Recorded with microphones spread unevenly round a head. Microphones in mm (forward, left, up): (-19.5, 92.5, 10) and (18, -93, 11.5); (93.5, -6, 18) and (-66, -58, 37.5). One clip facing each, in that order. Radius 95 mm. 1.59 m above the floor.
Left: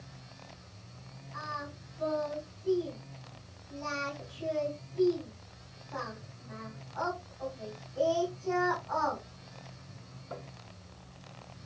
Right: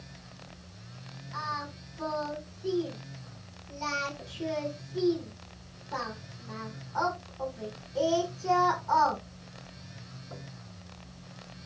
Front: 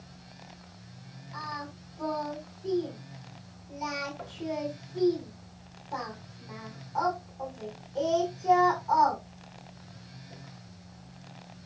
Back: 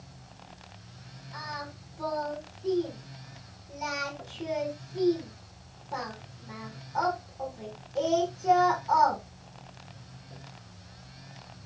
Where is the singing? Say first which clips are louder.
Right 2 dB, even; 80° right, 6 m.